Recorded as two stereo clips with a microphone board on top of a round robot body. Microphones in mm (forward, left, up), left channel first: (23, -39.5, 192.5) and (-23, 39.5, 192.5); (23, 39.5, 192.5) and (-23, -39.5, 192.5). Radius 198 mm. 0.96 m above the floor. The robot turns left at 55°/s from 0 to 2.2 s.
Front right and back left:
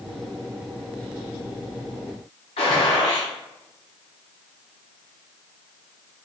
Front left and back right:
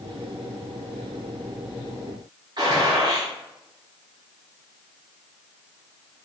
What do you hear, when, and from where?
2.6 s a gunshot: 75° right, 0.9 m